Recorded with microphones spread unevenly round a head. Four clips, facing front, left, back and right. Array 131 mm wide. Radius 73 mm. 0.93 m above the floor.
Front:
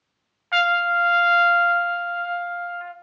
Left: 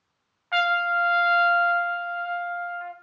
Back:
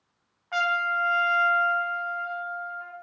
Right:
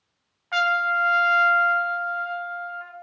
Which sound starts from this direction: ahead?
A trumpet, at 0.5 s.